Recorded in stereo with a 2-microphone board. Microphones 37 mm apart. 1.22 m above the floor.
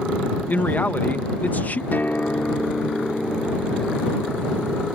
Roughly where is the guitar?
Left.